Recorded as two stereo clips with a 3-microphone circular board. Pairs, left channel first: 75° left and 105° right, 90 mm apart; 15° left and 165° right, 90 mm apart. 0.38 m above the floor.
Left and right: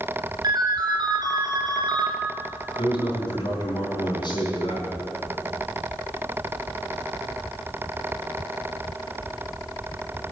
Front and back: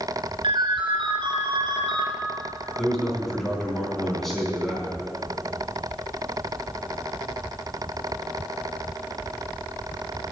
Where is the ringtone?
145° right, 2.5 m.